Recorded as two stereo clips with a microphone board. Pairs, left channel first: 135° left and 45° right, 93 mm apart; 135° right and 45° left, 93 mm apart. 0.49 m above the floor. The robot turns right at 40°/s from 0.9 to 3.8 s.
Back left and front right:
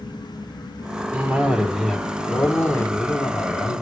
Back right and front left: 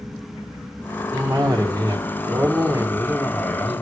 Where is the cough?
10° left, 1.6 m; by 3.8 s 120° left, 1.6 m.